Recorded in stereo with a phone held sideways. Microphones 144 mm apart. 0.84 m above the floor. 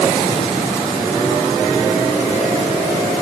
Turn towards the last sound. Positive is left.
No sound to turn to.